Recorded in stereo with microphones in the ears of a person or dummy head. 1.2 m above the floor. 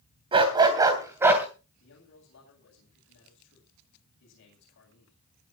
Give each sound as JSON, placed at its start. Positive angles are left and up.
{"t": 0.3, "sound": "a dog barking", "side_deg": -25, "distance_m": 3.5}
{"t": 1.8, "sound": "a man speaking", "side_deg": 65, "distance_m": 9.0}